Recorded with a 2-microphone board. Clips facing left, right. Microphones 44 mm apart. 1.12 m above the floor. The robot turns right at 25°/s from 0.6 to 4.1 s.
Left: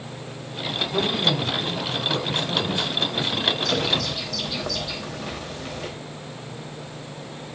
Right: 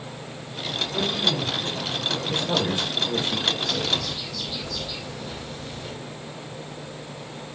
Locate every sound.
0.9 s a man speaking: 40° left, 5.5 m; by 2.2 s 70° left, 5.5 m
2.3 s a man speaking: 145° right, 5.5 m; by 3.5 s 115° right, 5.5 m
3.6 s a bird: 75° left (ahead or behind), 4.5 m; by 5.9 s 85° left, 4.5 m